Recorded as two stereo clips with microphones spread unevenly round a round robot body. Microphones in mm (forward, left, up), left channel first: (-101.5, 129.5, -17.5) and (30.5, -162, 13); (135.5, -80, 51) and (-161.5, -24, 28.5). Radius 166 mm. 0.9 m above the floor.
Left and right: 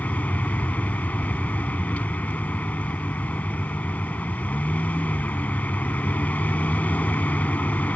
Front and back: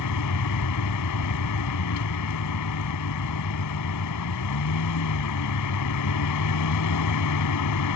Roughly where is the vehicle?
Ahead left.